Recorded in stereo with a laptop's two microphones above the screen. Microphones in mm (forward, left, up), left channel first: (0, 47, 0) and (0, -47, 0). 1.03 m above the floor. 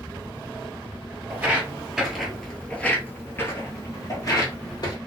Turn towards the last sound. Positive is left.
turn(degrees=45)  # may be behind; listen again after turning